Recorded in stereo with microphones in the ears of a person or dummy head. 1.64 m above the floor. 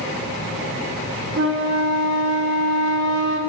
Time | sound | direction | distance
1.4 | a flute | 70° right (ahead or behind) | 0.5 m